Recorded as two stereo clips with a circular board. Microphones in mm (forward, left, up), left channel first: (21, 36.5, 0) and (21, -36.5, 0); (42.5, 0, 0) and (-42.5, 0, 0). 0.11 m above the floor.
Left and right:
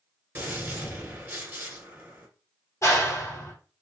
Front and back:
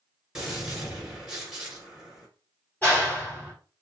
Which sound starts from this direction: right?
A gunshot, at 0.3 s.